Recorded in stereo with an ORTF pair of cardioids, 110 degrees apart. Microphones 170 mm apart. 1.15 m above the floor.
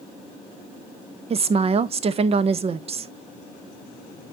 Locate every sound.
1.3 s a woman speaking: 35° right, 0.7 m